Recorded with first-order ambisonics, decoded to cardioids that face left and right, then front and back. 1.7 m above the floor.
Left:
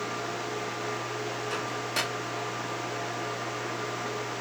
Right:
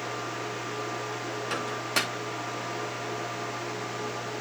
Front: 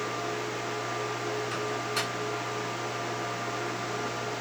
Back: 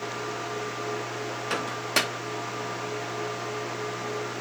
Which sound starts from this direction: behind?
A microwave, at 1.5 s.